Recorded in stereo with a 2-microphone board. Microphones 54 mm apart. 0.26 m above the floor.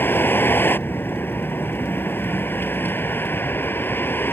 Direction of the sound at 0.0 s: 45° left (ahead or behind).